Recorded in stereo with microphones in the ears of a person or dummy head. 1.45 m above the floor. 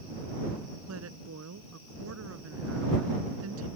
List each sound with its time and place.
0.9 s a woman speaking: 85° right